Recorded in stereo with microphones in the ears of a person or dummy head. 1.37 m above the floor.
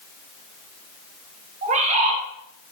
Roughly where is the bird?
Right.